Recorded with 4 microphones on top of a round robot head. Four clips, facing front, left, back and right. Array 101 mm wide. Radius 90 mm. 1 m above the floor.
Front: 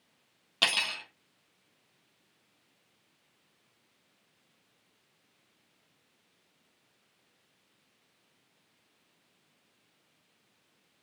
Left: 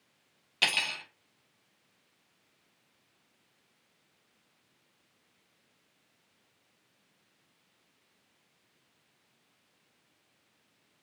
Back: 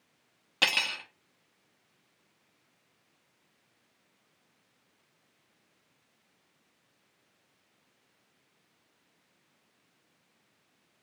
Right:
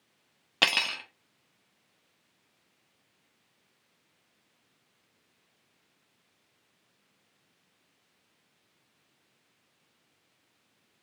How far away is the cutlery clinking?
About 0.9 m.